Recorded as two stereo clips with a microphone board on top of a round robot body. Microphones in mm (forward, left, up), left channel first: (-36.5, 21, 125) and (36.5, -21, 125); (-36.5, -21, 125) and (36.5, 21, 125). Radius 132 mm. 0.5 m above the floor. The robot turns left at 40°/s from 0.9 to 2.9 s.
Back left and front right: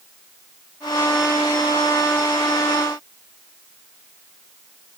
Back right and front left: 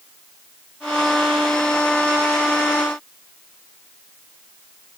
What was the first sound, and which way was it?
Only background noise.